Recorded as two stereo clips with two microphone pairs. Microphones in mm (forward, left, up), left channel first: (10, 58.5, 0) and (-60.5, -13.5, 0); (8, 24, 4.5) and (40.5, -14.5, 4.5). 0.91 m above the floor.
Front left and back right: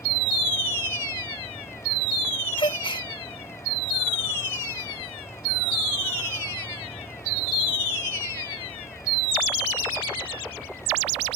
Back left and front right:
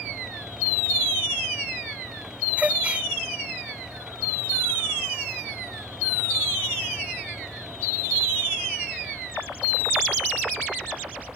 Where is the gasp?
15° left.